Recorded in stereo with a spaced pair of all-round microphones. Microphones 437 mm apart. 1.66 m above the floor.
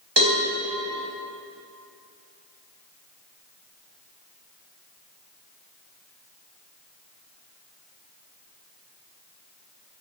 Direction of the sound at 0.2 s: 70° right (ahead or behind).